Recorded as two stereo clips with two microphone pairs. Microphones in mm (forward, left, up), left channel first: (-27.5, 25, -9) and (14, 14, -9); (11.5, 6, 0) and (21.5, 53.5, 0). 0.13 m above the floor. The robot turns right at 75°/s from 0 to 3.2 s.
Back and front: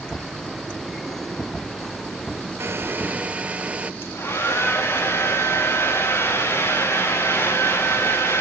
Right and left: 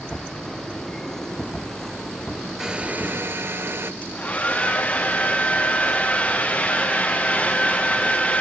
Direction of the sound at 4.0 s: 165° right.